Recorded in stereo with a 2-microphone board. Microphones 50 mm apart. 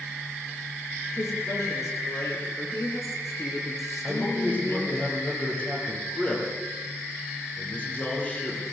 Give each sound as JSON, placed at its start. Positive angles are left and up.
{"t": 1.2, "sound": "a woman speaking", "side_deg": 80, "distance_m": 8.0}
{"t": 4.0, "sound": "a man speaking", "side_deg": 25, "distance_m": 8.0}